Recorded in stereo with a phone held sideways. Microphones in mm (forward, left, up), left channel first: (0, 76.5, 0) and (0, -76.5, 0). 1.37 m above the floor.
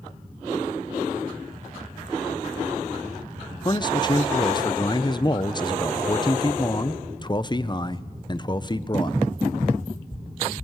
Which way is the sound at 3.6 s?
30° left (ahead or behind).